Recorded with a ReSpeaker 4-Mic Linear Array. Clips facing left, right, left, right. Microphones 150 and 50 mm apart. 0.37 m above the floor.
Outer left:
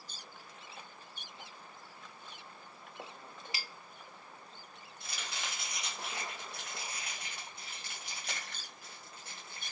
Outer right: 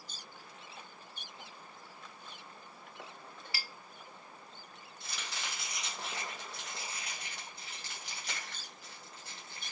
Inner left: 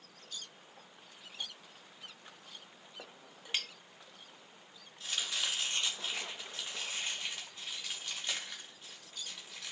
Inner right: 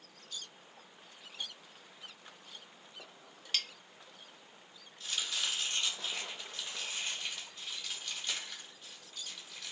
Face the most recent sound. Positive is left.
turn(degrees=20)  # may be behind; listen again after turning